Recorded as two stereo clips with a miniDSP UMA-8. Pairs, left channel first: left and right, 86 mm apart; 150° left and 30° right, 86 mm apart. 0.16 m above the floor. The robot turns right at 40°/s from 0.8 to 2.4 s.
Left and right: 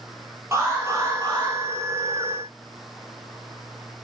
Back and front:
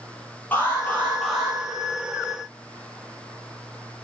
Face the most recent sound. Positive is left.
turn(degrees=-80)